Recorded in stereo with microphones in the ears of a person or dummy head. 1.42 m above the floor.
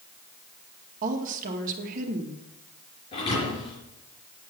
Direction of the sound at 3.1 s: 30° left (ahead or behind).